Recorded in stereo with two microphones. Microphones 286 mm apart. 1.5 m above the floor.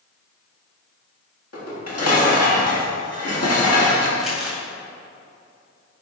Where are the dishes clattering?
60° left (ahead or behind), 1.4 m.